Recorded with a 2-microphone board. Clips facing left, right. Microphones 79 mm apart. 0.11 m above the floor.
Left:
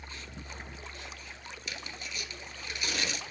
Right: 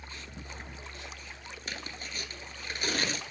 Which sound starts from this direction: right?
Tearing paper, at 1.7 s.